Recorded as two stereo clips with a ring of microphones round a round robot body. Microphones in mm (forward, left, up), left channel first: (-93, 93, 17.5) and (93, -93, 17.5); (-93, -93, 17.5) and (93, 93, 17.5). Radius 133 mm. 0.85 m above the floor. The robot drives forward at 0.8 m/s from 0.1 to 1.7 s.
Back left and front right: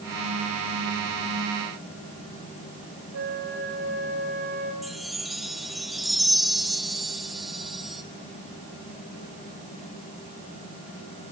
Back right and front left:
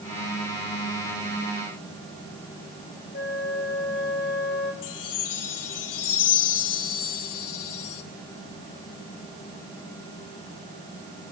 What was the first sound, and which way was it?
A flute, 80° right.